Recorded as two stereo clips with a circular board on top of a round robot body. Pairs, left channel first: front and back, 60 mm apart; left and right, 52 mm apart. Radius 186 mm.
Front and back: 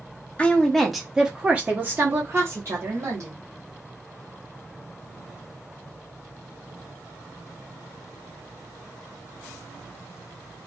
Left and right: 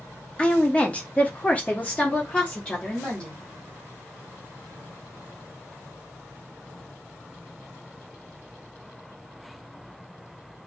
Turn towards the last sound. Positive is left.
turn(degrees=150)